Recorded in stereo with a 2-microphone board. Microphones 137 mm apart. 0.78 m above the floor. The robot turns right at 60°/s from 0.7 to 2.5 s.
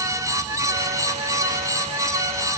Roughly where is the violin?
No violin in this recording.